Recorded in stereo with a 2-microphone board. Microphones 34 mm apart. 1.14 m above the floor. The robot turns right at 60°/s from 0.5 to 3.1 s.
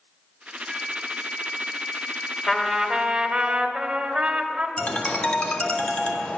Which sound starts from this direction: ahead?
A flute, at 0.7 s.